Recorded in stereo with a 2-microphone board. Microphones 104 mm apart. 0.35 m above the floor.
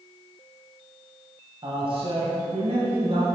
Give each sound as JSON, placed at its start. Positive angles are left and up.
{"t": 1.6, "sound": "a man speaking", "side_deg": -50, "distance_m": 2.0}